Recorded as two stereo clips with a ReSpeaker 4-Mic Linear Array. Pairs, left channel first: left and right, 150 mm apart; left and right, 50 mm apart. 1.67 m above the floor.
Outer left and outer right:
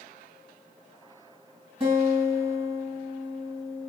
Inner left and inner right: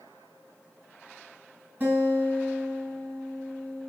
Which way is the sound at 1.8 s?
30° right (ahead or behind).